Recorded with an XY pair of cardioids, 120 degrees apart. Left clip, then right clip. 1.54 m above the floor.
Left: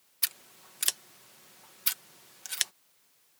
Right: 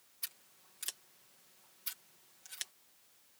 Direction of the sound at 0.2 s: 70° left.